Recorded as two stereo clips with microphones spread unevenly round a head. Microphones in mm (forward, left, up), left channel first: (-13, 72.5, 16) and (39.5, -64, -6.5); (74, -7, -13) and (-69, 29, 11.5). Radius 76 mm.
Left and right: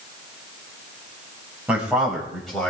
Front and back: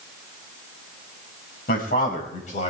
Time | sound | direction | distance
1.7 | a man speaking | 10° left | 6 m